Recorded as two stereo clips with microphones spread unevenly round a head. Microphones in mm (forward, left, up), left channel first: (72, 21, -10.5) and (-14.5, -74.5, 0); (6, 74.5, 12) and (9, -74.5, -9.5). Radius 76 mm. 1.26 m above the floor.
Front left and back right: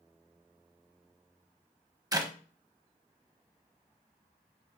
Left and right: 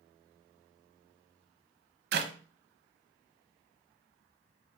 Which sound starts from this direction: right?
A clap, at 2.1 s.